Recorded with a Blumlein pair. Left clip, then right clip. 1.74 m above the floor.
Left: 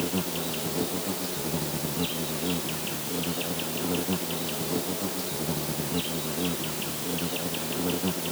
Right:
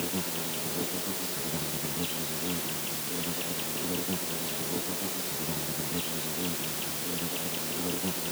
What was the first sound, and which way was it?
An insect, 15° left.